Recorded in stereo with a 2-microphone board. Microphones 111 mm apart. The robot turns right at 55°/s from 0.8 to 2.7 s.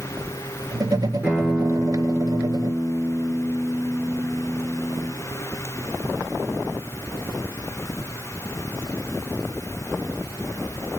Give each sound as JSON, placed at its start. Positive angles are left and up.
{"t": 1.2, "sound": "a guitar", "azimuth_deg": -165, "distance_m": 2.0}